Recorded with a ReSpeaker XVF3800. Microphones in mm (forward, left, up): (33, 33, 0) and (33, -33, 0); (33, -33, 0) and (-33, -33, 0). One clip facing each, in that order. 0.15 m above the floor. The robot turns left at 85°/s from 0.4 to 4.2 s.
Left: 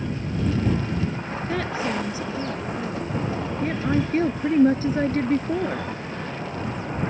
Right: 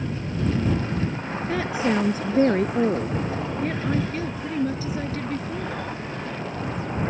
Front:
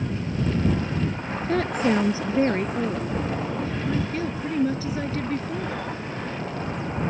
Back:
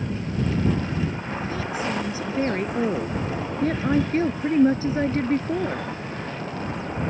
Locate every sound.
1.5 s a woman speaking: 5° left; by 5.9 s 135° left